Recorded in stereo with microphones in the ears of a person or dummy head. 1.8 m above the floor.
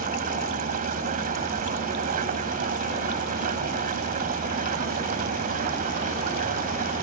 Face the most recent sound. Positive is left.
turn(degrees=-45)  # may be behind; listen again after turning